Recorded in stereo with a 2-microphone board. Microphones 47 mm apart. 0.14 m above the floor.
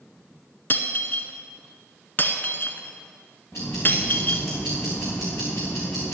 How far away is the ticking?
About 3 m.